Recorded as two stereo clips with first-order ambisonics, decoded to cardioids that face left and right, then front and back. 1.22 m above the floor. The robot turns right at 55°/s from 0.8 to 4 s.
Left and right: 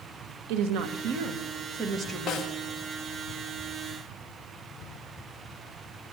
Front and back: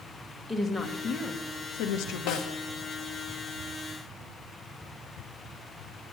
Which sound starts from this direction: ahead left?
A snare drum, at 2.3 s.